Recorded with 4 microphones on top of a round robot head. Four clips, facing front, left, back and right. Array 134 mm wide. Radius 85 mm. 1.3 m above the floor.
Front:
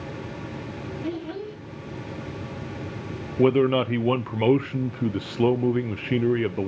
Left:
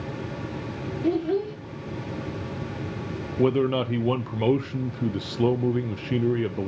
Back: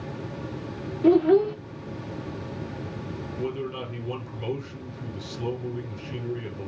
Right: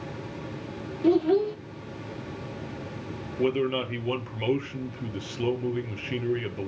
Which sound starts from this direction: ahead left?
A man speaking, at 3.4 s.